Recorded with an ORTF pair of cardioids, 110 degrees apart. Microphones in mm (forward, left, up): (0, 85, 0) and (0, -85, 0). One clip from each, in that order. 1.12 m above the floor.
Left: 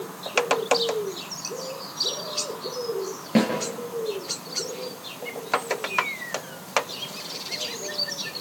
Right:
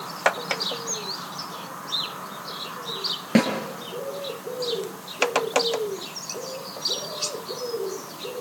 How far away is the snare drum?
About 6.5 m.